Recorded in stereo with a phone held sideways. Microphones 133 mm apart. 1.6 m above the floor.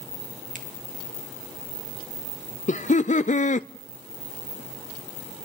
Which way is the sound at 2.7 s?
60° left (ahead or behind).